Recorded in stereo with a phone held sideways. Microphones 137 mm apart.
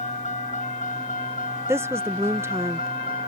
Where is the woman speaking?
20° right (ahead or behind).